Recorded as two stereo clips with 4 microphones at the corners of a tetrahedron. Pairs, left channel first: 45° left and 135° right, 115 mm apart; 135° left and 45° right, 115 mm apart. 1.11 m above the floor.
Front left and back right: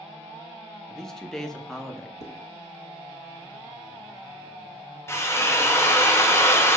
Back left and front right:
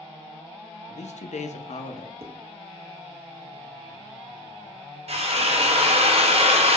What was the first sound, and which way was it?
A man speaking, 130° left.